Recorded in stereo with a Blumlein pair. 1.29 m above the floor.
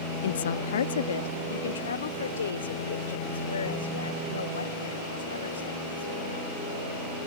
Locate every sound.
0.2 s a woman speaking: 60° left; by 6.5 s 70° left